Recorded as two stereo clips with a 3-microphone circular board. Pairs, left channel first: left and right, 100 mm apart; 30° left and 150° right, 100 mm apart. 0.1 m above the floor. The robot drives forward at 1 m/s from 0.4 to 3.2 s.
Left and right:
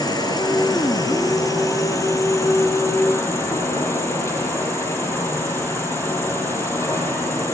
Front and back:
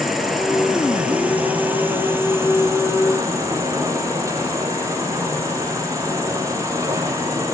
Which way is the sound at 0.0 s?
120° left.